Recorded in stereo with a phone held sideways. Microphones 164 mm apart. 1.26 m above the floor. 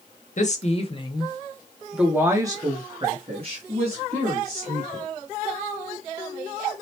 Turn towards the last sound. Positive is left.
turn(degrees=-55)  # may be behind; listen again after turning